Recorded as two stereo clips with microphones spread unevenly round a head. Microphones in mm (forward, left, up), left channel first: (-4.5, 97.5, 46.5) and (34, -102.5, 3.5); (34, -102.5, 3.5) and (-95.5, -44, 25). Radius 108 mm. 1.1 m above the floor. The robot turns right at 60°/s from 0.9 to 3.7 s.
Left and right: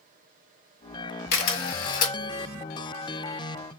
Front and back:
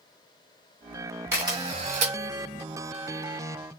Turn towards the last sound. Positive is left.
turn(degrees=-130)